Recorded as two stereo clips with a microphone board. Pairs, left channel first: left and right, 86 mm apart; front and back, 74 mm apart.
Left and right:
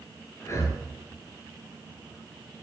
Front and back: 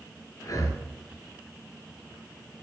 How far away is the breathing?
About 1.7 m.